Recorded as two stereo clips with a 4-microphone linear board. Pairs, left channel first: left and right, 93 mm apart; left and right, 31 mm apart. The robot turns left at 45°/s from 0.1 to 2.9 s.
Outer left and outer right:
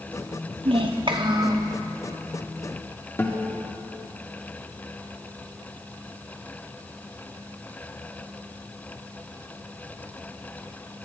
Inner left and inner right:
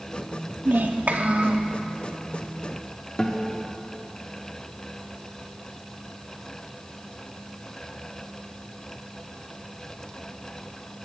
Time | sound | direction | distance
0.7 | a child speaking | 90° right | 0.8 m
3.2 | a guitar | 25° left (ahead or behind) | 1.3 m